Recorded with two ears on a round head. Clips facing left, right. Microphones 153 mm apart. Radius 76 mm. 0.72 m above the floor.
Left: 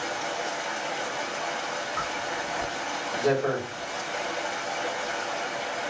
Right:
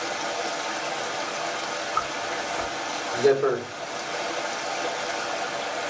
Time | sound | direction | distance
0.0 | running water | 45° right (ahead or behind) | 1.2 m
1.9 | a zipper | 65° right (ahead or behind) | 1.8 m